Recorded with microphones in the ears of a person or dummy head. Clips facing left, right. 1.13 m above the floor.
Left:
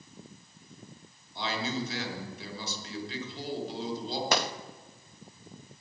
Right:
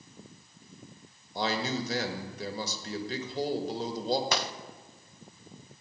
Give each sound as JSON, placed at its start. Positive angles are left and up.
{"t": 1.4, "sound": "a man speaking", "side_deg": -40, "distance_m": 1.5}
{"t": 4.3, "sound": "a gunshot", "side_deg": 50, "distance_m": 0.6}